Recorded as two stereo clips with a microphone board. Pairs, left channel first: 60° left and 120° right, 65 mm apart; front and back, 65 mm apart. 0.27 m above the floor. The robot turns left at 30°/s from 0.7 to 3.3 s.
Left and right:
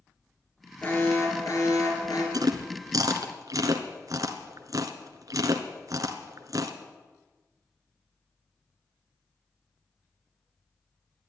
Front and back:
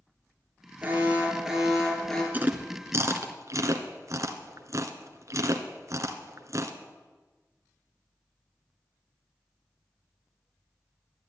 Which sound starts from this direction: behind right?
Chewing, at 2.3 s.